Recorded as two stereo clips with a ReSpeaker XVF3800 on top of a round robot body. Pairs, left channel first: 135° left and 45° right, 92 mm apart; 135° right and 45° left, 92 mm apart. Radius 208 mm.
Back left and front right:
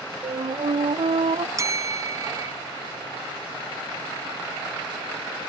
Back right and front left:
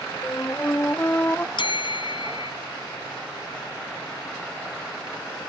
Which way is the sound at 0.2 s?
65° right.